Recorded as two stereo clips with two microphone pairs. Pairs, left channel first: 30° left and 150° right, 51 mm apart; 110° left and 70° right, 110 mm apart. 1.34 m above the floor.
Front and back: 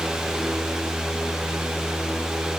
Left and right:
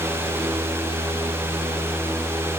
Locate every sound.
Only background noise.